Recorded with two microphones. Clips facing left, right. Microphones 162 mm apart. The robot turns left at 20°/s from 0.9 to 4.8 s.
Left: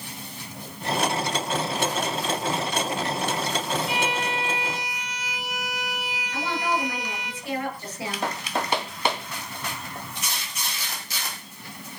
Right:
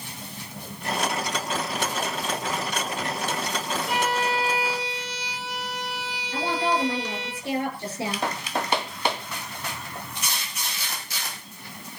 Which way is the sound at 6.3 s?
30° right (ahead or behind).